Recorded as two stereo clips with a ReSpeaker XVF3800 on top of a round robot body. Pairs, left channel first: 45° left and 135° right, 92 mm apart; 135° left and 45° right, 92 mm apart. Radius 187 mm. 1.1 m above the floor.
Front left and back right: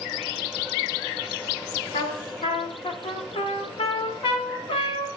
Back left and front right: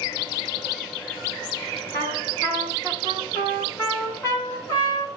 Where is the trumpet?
75° left, 1.2 m.